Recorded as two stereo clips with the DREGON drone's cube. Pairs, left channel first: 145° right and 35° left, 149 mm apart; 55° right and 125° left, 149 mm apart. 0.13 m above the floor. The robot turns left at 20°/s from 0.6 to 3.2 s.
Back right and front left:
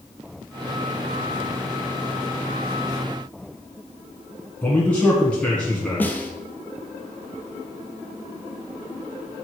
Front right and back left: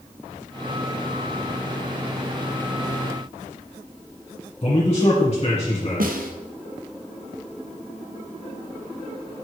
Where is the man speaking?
65° right, 1.8 m.